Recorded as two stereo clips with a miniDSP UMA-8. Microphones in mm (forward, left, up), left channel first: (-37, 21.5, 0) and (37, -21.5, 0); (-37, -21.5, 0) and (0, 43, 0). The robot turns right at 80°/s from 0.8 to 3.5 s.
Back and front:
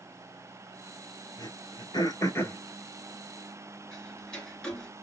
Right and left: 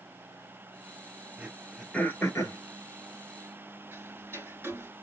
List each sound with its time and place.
1.4 s throat clearing: 125° left, 1.3 m; by 2.6 s 140° right, 1.3 m
3.9 s ticking: 75° left, 1.5 m